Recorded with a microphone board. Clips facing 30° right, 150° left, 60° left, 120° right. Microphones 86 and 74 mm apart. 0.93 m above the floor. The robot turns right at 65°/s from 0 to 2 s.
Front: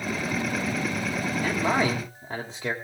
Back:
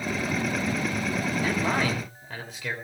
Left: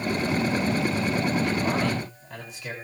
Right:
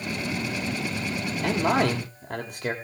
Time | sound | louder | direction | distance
1.4 | a man speaking | front 3 dB, right 2 dB | 125° right | 3 m